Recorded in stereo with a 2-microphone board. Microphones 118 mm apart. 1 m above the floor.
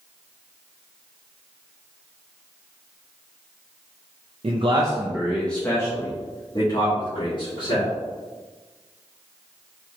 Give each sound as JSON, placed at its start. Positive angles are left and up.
{"t": 4.4, "sound": "a man speaking", "side_deg": -55, "distance_m": 0.6}